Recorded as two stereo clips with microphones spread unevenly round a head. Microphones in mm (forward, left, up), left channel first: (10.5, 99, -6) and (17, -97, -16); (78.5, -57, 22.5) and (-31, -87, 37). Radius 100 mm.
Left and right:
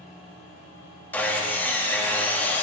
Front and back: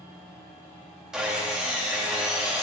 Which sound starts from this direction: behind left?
Sawing, at 1.1 s.